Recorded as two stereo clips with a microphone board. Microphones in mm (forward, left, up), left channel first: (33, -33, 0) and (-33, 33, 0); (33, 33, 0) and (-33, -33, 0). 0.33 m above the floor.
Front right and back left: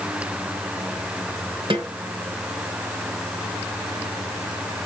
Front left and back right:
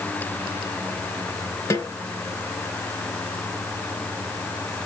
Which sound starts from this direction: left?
A snare drum, at 1.7 s.